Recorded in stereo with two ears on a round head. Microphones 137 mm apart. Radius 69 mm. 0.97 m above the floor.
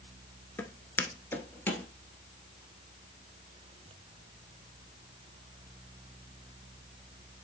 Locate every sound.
0.6 s footsteps: 15° left (ahead or behind), 0.9 m; by 1.9 s 10° left (ahead or behind), 1.2 m